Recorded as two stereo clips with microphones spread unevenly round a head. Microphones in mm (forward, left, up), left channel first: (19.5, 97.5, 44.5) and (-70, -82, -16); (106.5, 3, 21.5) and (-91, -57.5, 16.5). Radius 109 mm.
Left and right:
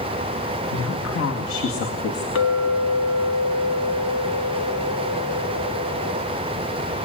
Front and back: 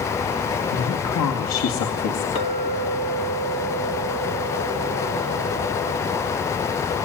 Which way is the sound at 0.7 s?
30° left.